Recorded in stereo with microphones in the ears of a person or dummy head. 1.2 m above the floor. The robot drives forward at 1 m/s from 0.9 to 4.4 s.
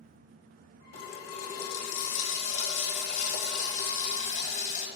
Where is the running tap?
80° left, 2.5 m; by 4.9 s 35° left (ahead or behind), 4.5 m.